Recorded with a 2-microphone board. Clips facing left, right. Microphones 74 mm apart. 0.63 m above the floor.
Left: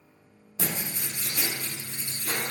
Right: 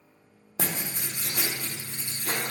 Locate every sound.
0.6 s writing: 55° right (ahead or behind), 0.7 m